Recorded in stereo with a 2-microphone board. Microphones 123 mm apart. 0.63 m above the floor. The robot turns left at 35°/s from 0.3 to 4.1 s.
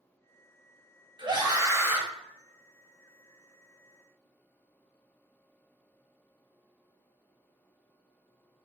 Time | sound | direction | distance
1.2 | a scream | 40° right (ahead or behind) | 1.1 m